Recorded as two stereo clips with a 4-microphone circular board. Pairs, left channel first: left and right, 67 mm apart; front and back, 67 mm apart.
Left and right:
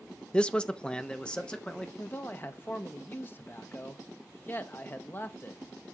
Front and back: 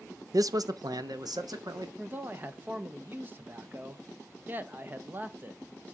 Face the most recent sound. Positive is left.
turn(degrees=135)